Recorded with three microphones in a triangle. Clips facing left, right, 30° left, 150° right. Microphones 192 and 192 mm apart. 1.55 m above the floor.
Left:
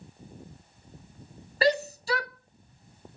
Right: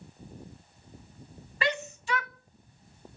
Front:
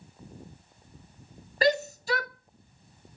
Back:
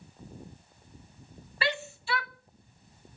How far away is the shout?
About 0.5 m.